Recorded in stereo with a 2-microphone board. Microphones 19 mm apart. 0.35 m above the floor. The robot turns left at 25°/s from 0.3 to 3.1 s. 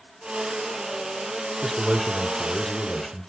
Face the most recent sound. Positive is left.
turn(degrees=25)  # may be behind; listen again after turning